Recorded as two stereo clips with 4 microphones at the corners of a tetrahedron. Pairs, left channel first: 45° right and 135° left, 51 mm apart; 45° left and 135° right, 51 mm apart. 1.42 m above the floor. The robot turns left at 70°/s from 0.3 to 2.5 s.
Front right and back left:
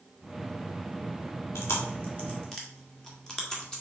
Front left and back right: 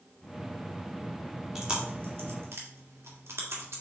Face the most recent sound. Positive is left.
turn(degrees=-120)